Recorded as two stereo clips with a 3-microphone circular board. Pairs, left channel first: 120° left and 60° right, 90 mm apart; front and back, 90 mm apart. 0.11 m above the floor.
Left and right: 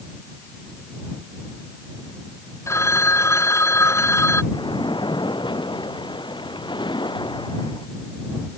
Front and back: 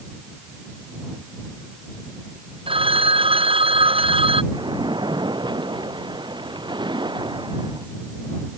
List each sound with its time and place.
2.7 s a phone ringing: straight behind
4.5 s a splash: 150° left